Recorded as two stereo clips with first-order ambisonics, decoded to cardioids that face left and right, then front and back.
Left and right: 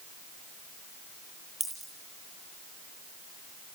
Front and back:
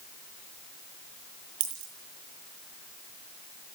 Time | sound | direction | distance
1.6 | a dropped coin | 175° right | 9.5 m